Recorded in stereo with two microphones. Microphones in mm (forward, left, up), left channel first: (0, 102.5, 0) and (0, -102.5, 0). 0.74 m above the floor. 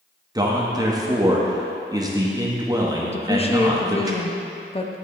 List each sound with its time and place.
0.3 s a man speaking: 20° right (ahead or behind), 0.8 m
3.1 s a woman speaking: 30° left (ahead or behind), 0.5 m